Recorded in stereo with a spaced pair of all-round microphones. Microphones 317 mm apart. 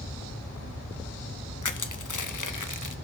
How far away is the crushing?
About 0.7 m.